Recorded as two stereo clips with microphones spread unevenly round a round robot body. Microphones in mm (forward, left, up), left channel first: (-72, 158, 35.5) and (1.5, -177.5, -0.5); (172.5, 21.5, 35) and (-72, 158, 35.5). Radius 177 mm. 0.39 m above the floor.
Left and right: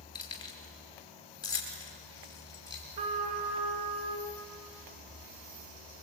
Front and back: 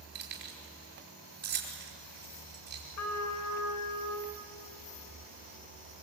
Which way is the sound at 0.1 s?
Straight behind.